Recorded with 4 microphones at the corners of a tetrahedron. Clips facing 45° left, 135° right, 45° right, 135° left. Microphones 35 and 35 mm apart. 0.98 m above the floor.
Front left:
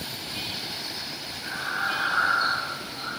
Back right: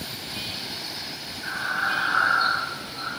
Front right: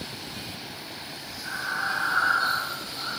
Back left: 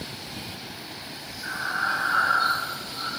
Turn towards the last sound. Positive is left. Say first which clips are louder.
# back right 3 dB, back left 2 dB
turn(degrees=180)